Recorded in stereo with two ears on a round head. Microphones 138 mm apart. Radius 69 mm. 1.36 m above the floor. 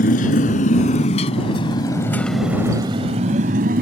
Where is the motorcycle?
60° left (ahead or behind); by 3.8 s 65° right (ahead or behind).